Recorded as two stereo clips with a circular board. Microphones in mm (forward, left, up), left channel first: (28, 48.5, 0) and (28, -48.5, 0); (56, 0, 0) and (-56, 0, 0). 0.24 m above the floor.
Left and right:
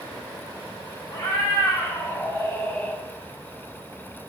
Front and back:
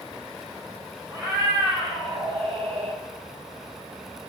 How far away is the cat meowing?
About 3.5 m.